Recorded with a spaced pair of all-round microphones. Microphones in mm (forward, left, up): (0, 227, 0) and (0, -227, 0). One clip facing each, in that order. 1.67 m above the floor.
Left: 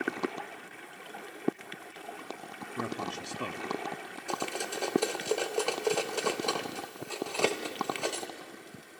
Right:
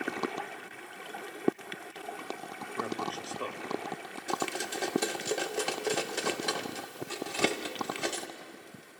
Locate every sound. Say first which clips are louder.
2.8 s a man speaking: even; 45° left (ahead or behind), 0.9 m
4.3 s cutlery clinking: right 1 dB; 35° right (ahead or behind), 1.0 m